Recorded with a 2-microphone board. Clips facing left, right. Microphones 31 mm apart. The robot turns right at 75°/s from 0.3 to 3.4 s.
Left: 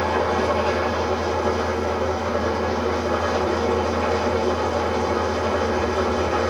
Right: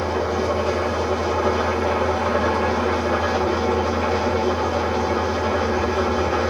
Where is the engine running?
110° left, 7 m; by 6.5 s 15° right, 7 m.